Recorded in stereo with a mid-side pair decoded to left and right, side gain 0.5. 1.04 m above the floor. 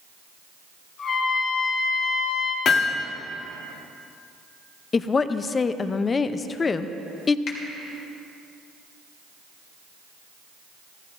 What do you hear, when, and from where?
1.0 s a trumpet: 60° left, 4 m
2.6 s hammering: 60° left, 1.5 m
4.9 s a woman speaking: 35° left, 0.6 m
7.5 s a finger snap: 60° left, 2.5 m